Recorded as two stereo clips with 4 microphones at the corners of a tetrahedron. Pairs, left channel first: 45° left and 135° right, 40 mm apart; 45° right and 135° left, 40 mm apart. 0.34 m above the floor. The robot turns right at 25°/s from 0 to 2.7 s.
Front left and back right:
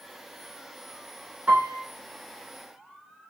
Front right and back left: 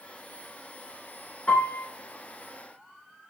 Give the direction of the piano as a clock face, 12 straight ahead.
3 o'clock.